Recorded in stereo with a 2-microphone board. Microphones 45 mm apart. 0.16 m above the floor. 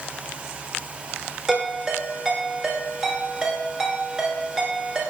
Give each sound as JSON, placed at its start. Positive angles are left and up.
{"t": 1.5, "sound": "a ringtone", "side_deg": -10, "distance_m": 1.7}